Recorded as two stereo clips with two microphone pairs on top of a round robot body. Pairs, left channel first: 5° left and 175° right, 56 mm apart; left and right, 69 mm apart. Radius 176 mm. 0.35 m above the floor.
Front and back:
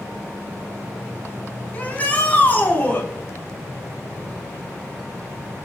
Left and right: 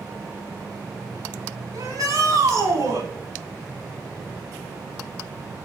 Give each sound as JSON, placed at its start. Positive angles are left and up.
{"t": 1.7, "sound": "a shout", "azimuth_deg": -55, "distance_m": 5.0}